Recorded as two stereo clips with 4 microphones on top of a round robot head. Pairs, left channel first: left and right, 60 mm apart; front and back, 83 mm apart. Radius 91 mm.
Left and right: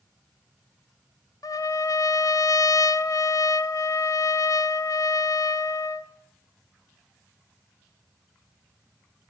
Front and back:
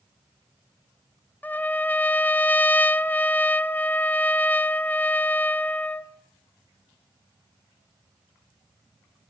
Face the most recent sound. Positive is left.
turn(degrees=70)